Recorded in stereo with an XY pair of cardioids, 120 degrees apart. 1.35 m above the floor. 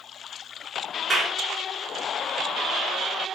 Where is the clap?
20° right, 4 m.